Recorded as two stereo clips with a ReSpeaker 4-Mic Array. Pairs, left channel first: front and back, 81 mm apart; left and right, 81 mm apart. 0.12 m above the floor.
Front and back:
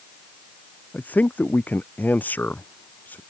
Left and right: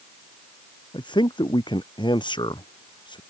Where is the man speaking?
70° left.